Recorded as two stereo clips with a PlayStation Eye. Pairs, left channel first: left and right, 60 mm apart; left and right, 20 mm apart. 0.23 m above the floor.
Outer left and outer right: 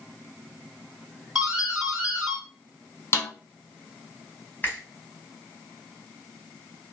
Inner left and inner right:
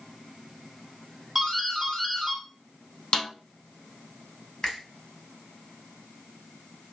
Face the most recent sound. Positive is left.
turn(degrees=30)  # may be behind; listen again after turning